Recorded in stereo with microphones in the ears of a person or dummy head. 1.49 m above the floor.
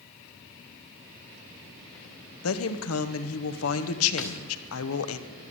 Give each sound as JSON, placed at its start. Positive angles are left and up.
{"t": 2.4, "sound": "a woman speaking", "side_deg": 85, "distance_m": 1.2}
{"t": 4.2, "sound": "a snare drum", "side_deg": 5, "distance_m": 0.9}